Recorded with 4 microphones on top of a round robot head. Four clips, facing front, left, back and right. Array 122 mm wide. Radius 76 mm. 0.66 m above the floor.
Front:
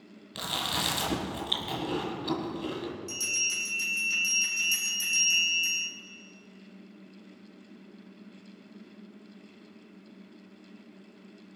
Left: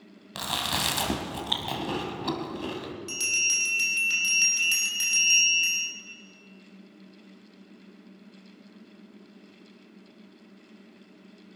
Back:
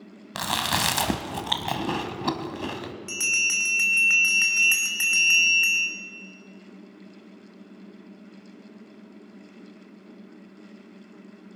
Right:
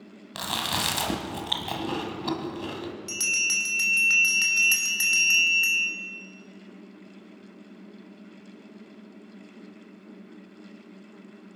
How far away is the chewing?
About 1.7 m.